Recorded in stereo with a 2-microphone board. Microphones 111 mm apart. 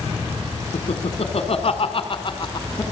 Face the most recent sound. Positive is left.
turn(degrees=35)  # may be behind; listen again after turning